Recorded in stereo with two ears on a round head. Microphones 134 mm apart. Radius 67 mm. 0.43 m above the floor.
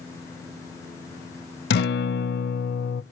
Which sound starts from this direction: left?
A guitar, at 1.7 s.